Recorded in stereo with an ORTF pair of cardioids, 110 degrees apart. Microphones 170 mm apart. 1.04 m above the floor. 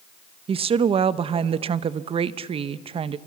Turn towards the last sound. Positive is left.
turn(degrees=-35)